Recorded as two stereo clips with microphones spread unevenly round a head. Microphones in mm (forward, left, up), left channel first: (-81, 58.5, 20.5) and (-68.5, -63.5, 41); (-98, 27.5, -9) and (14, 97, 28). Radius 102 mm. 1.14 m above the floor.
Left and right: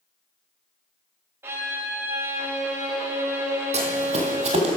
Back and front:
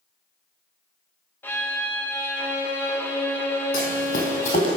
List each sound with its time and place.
1.4 s a violin: 50° right, 0.6 m
3.7 s running footsteps: 100° right, 2.5 m; by 4.8 s 90° right, 1.8 m